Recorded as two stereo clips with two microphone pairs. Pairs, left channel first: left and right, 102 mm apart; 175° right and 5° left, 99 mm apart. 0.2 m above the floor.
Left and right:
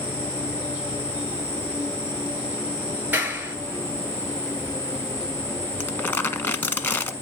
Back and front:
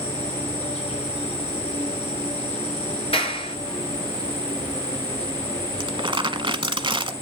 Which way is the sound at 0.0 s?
175° right.